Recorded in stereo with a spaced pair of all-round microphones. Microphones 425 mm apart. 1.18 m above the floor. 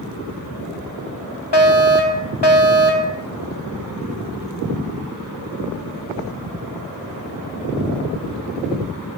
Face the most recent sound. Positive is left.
turn(degrees=70)  # may be behind; listen again after turning